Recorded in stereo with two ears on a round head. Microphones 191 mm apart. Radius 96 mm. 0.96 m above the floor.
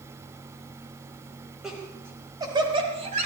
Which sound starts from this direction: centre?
Laughter, at 1.6 s.